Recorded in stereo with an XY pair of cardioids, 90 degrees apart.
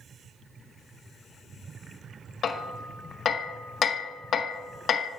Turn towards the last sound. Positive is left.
turn(degrees=60)